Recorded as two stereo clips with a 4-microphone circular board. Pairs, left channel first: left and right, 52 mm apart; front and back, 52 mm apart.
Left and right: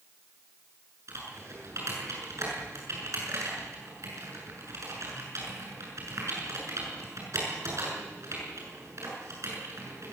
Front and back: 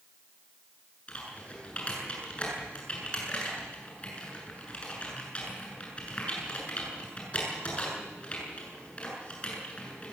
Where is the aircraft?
No aircraft in this recording.